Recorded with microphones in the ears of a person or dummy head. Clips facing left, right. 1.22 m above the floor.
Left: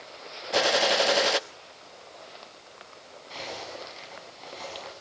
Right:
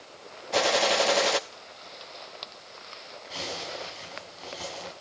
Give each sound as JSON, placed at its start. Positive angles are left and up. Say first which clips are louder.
{"t": 0.5, "sound": "a gunshot", "louder": "even", "side_deg": 0, "distance_m": 0.8}
{"t": 3.3, "sound": "a zipper", "louder": "right 1 dB", "side_deg": -5, "distance_m": 7.5}